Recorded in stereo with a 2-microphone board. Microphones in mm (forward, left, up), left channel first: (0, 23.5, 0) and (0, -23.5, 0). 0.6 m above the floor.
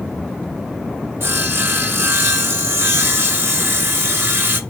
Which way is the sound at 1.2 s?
55° right (ahead or behind).